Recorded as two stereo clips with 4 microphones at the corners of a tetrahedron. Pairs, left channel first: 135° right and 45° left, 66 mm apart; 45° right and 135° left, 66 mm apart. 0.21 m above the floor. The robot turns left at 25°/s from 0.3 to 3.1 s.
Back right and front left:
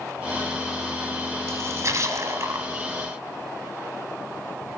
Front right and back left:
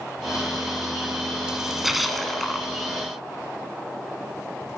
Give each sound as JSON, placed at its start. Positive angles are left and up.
{"t": 1.5, "sound": "a splash", "azimuth_deg": 60, "distance_m": 1.3}